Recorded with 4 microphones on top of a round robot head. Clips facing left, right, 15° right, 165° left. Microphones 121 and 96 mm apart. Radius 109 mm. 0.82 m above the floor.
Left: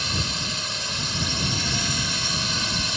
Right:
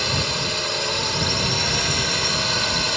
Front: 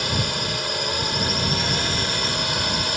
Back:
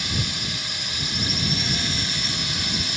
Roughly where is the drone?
Ahead right.